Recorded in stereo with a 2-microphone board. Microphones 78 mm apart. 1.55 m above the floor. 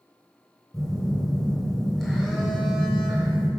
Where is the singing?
I don't hear singing.